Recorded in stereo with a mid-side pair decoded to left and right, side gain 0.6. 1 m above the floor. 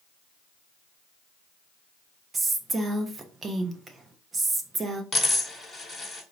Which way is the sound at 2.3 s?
25° right.